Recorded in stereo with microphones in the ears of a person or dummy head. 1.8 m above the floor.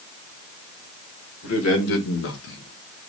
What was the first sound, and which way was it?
A man speaking, 80° left.